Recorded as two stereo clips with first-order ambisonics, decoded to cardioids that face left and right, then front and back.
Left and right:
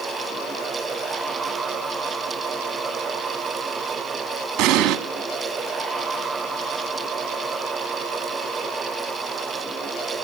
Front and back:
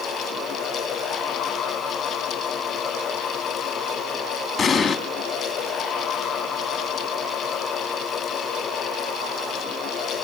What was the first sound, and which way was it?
An explosion, 75° right.